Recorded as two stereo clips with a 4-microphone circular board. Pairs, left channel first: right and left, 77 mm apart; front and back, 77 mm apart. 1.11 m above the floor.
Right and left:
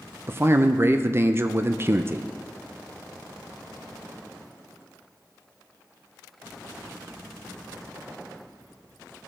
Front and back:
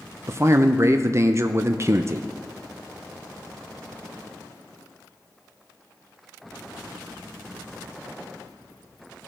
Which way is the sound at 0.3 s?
140° left.